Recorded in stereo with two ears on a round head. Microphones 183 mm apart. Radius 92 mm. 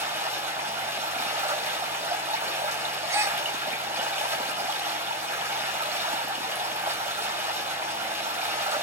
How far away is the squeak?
No squeak in this recording.